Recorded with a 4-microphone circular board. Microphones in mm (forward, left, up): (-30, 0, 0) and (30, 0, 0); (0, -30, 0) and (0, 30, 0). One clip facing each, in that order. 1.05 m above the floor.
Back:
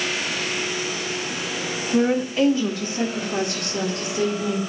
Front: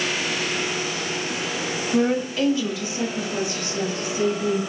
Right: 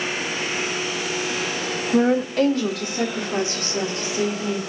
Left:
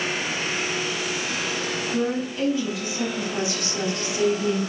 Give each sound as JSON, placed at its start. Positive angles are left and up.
{"t": 1.9, "sound": "a woman speaking", "azimuth_deg": -90, "distance_m": 1.3}